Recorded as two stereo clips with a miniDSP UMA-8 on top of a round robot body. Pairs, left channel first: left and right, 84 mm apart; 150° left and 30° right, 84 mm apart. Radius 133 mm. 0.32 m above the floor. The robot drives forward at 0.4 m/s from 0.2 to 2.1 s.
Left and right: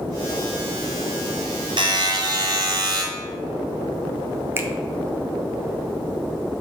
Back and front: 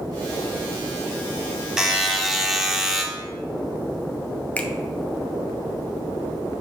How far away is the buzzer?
About 1.1 m.